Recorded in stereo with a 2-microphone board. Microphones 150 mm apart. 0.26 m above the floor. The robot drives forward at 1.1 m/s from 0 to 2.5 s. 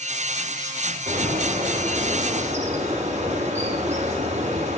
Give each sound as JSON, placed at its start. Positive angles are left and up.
{"t": 1.1, "sound": "a bird", "side_deg": -60, "distance_m": 2.0}